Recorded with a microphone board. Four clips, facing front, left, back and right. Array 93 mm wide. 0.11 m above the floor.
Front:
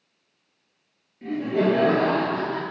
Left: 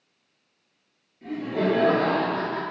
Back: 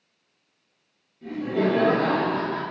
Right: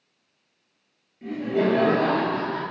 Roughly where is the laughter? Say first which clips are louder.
Right 2 dB, front 2 dB; ahead.